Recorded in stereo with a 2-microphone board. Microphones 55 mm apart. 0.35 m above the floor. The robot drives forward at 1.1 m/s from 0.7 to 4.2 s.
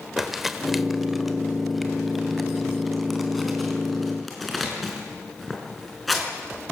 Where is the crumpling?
5° right (ahead or behind), 1.3 m; by 6.3 s centre (ahead or behind), 4.5 m.